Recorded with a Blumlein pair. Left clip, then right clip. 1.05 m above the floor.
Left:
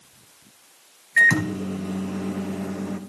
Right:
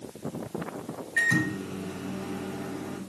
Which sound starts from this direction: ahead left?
A microwave, at 1.2 s.